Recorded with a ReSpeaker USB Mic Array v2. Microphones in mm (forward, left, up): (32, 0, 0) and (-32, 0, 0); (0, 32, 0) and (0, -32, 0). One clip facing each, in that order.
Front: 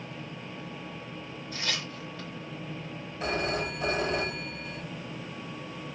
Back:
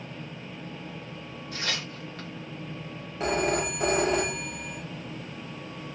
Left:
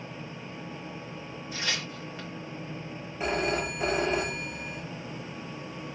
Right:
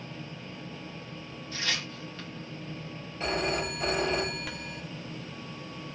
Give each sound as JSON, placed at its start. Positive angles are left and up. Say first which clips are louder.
{"t": 1.5, "sound": "tearing paper", "louder": "back 2 dB, even", "azimuth_deg": 165, "distance_m": 1.8}
{"t": 3.2, "sound": "a phone ringing", "louder": "back 4 dB, left 2 dB", "azimuth_deg": 165, "distance_m": 1.3}